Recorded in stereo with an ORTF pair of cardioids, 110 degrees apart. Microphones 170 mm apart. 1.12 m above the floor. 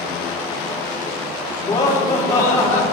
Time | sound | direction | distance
1.6 | laughter | 45° left | 4 m